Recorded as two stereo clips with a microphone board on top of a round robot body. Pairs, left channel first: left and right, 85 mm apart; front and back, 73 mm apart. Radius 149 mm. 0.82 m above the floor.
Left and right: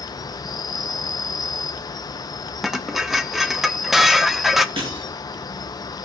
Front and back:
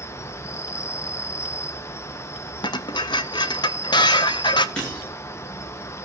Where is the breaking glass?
75° right, 8 m.